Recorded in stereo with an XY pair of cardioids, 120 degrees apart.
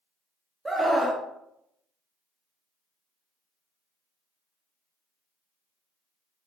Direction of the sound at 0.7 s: 10° right.